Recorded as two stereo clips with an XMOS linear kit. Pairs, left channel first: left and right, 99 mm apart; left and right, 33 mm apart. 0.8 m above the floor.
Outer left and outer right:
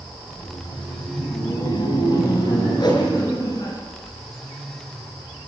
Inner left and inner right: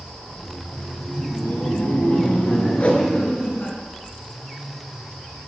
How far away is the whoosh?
About 5 m.